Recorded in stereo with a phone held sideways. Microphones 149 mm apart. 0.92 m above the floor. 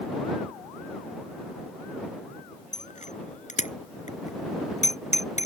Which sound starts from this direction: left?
A bicycle bell, at 2.7 s.